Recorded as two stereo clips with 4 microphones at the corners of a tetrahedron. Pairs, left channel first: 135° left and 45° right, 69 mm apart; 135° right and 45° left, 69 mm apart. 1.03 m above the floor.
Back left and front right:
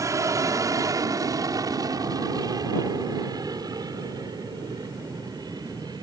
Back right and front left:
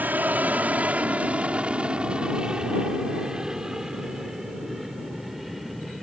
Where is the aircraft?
15° right; by 6.0 s 45° right.